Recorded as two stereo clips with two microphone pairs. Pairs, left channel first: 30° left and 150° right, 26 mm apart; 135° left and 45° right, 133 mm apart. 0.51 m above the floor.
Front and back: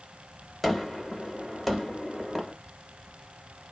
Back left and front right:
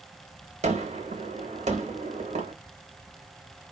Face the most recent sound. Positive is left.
turn(degrees=-60)